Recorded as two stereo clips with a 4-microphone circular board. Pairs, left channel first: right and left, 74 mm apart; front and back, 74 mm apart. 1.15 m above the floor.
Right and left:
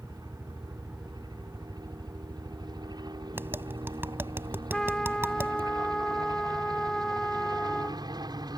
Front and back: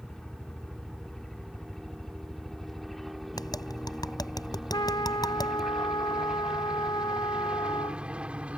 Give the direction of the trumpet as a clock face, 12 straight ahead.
12 o'clock.